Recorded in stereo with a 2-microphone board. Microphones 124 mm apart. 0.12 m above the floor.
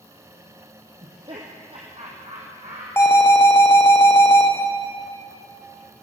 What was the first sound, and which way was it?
Laughter, 45° right (ahead or behind).